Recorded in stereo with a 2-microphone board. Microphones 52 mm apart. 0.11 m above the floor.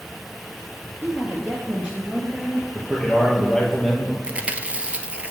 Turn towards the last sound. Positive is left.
turn(degrees=-25)  # may be behind; listen again after turning